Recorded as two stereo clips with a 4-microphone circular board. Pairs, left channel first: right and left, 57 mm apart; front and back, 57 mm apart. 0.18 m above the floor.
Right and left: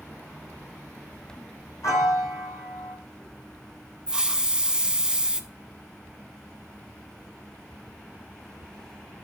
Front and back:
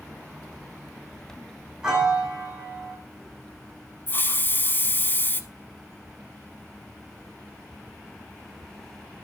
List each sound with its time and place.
1.8 s a piano: 105° right, 3.5 m
4.1 s a hiss: 20° left, 0.6 m